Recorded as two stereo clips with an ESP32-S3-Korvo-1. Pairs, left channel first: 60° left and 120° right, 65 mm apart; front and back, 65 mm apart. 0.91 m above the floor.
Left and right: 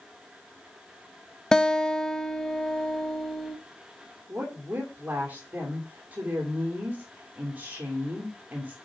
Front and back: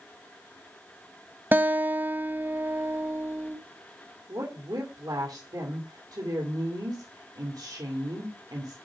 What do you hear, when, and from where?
1.5 s a guitar: 135° left, 0.9 m
4.3 s a woman speaking: 175° left, 2.5 m